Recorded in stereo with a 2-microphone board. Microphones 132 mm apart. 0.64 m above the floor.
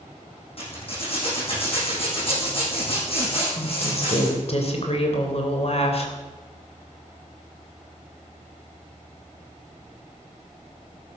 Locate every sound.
0.6 s a zipper: 45° left (ahead or behind), 8 m
3.6 s a woman speaking: 50° left (ahead or behind), 3 m